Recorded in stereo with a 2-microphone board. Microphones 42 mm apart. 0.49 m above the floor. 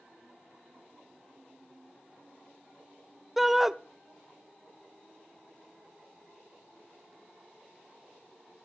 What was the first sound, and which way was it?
A shout, 5° right (ahead or behind).